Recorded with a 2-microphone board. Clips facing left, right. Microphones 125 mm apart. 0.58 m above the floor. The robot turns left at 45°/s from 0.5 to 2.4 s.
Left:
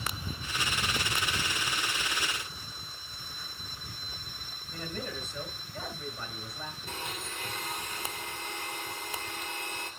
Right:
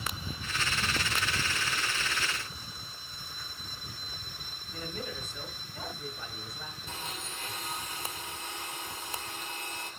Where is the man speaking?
65° left (ahead or behind), 5.5 m.